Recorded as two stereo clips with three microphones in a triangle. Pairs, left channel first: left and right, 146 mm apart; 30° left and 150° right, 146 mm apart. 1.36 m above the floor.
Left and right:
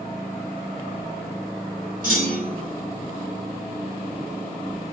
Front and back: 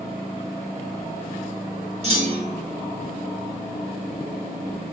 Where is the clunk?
105° right, 1.1 m.